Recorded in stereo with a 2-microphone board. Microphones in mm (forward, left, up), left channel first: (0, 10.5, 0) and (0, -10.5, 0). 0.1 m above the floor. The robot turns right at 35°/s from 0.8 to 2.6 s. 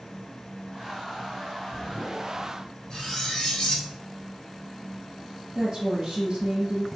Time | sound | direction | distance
2.9 | cutlery clinking | 45° left (ahead or behind) | 1.9 m
5.5 | a woman speaking | 45° right (ahead or behind) | 1.6 m